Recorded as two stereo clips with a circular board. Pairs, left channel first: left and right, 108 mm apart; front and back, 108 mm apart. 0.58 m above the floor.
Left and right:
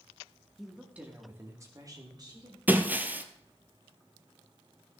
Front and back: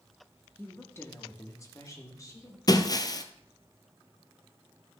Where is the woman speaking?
5° right, 1.2 m; by 2.6 s 50° right, 2.0 m.